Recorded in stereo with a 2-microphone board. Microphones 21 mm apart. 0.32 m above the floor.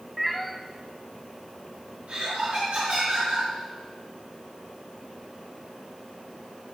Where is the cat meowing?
5° right (ahead or behind), 1.1 m.